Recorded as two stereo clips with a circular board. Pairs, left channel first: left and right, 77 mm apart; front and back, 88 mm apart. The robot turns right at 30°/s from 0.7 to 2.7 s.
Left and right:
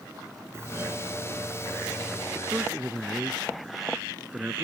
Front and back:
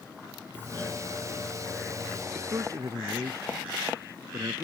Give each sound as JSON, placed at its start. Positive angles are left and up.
{"t": 0.5, "sound": "a doorbell", "azimuth_deg": -55}
{"t": 2.4, "sound": "a man speaking", "azimuth_deg": -165}